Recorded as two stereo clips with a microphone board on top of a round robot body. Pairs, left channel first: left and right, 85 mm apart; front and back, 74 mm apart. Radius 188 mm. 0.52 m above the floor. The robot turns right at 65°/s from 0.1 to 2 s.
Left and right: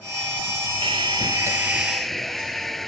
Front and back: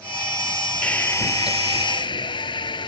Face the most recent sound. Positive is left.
turn(degrees=0)